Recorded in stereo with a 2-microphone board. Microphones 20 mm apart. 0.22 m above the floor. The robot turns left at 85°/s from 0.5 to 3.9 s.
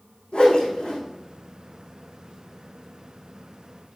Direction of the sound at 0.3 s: 70° left (ahead or behind).